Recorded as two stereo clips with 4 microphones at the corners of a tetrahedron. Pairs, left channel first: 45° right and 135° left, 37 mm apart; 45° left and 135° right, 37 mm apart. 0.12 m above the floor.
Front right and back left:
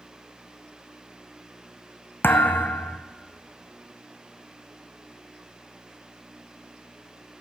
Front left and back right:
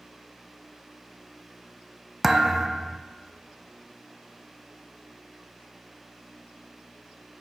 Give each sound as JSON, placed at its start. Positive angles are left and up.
{"t": 2.2, "sound": "a thud", "azimuth_deg": -55, "distance_m": 0.6}